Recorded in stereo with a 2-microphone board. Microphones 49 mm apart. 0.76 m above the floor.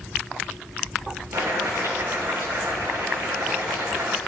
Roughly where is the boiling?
Right.